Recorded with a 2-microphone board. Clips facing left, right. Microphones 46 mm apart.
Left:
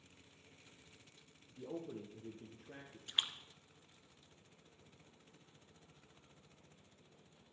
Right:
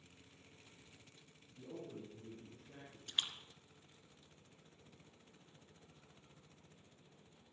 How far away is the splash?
About 1.3 m.